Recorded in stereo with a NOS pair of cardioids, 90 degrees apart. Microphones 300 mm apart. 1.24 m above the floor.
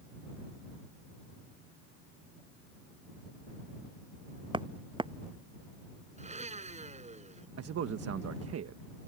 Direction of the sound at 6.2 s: 20° right.